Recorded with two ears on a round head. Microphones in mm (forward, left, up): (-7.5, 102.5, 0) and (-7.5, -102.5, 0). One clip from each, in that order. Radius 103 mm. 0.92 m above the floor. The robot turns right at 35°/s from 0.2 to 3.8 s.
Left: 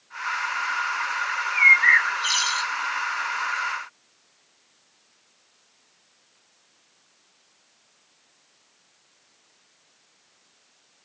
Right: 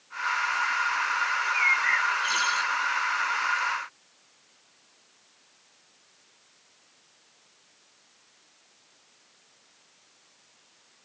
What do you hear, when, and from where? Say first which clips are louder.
1.3 s a bird: left 10 dB; 100° left; by 2.7 s 145° left